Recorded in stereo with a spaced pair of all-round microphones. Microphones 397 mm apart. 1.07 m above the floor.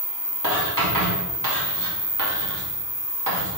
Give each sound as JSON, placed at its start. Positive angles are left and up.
{"t": 0.4, "sound": "writing", "side_deg": -50, "distance_m": 2.5}